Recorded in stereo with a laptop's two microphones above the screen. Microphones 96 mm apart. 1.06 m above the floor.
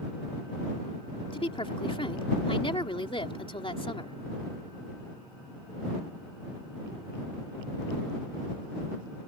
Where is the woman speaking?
70° left (ahead or behind).